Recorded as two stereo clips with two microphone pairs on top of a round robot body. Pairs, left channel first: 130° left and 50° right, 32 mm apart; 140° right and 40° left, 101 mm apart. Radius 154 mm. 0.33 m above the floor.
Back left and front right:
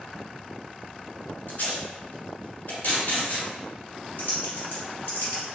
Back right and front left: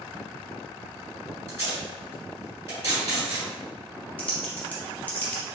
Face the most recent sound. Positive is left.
turn(degrees=145)